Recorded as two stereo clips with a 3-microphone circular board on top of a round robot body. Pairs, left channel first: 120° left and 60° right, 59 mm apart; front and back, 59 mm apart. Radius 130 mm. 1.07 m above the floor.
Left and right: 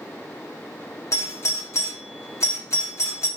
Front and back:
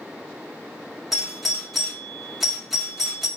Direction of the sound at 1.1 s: 95° left.